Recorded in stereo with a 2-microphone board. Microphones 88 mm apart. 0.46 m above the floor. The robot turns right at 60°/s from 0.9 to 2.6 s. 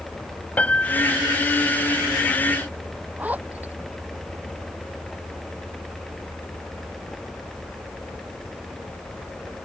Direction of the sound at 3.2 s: 20° right (ahead or behind).